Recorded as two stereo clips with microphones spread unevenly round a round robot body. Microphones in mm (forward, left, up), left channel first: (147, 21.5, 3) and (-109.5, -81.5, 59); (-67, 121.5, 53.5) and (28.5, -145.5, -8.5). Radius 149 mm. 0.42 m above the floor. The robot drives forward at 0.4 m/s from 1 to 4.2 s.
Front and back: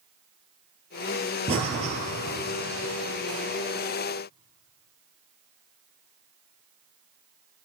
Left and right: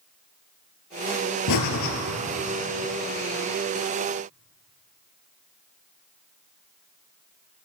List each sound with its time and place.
1.5 s breathing: 130° left, 2 m; by 1.9 s 135° left, 2.5 m